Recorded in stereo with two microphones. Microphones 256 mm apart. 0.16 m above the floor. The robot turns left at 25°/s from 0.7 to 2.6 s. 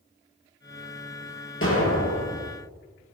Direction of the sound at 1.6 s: 55° left (ahead or behind).